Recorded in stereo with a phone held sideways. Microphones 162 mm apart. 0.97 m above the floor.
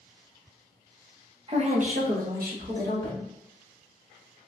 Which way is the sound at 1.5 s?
35° right (ahead or behind).